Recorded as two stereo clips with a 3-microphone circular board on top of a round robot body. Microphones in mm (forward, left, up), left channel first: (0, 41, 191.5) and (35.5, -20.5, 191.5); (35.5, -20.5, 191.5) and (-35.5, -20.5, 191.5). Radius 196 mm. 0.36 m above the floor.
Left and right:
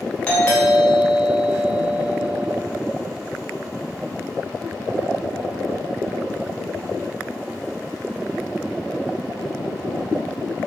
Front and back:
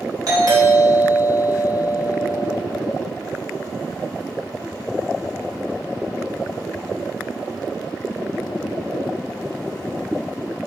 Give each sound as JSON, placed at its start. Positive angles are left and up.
{"t": 0.3, "sound": "a doorbell", "azimuth_deg": -165, "distance_m": 3.5}